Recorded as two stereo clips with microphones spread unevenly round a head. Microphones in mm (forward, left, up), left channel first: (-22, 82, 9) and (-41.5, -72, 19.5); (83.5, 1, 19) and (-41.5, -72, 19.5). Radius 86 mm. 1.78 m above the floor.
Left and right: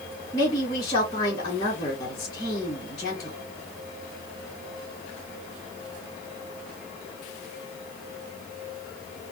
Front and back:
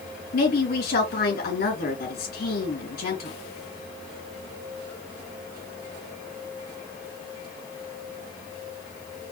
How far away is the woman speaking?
About 3 m.